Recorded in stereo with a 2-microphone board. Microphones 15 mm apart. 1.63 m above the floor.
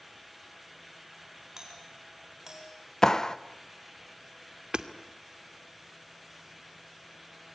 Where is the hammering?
55° right (ahead or behind), 2 m.